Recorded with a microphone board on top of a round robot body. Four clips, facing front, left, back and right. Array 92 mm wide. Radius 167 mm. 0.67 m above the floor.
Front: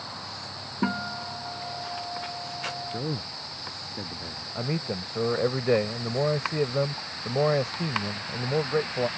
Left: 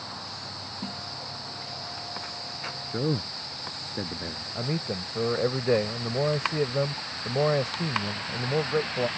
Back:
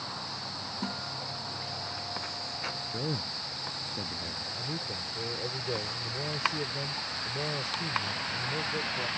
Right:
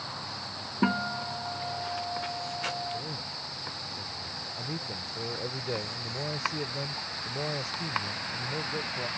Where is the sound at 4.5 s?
40° left.